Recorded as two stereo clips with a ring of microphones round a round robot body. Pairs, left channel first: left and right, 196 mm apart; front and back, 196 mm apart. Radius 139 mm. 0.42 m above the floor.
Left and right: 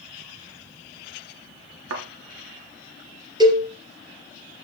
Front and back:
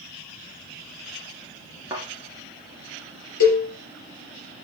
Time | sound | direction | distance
1.9 | a thud | 100° right | 2.0 m
3.4 | a cowbell | 20° right | 4.5 m